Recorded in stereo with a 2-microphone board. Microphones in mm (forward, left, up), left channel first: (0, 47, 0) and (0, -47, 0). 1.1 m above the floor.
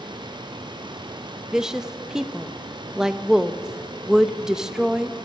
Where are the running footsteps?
No running footsteps in this recording.